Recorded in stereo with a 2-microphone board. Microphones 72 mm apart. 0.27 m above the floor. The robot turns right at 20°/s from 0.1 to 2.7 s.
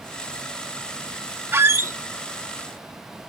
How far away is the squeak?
About 0.5 m.